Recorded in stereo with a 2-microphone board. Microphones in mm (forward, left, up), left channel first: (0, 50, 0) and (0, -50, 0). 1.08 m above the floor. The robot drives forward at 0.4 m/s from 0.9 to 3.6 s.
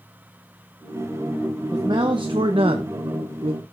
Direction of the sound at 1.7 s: 45° right (ahead or behind).